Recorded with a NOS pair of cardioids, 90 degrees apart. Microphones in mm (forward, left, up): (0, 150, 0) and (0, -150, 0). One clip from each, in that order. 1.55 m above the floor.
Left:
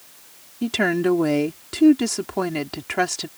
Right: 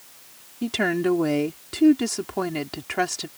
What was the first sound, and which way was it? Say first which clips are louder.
A woman speaking: left 2 dB; 15° left.